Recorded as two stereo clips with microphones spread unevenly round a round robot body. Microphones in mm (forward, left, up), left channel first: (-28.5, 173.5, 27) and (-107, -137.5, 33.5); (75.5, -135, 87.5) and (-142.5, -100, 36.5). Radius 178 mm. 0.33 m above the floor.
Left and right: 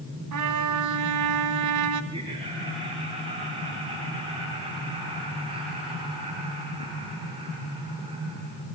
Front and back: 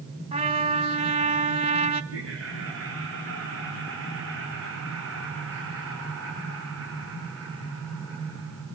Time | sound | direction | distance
0.3 | a trumpet | 130° right | 2.5 m
2.1 | laughter | 175° right | 7.5 m